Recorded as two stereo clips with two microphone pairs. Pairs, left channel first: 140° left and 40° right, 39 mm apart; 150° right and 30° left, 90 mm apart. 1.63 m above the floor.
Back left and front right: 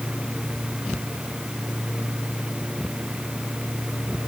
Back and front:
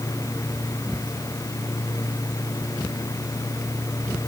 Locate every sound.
Only background noise.